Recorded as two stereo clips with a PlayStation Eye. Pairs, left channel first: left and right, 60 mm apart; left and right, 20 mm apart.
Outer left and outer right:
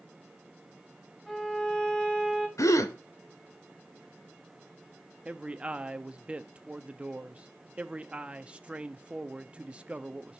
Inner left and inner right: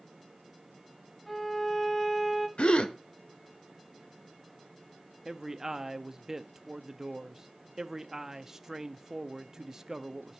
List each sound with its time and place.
1.3 s a violin: 15° left (ahead or behind), 1.5 m
2.6 s a gasp: 65° left (ahead or behind), 0.9 m
5.2 s a man speaking: 20° right (ahead or behind), 0.6 m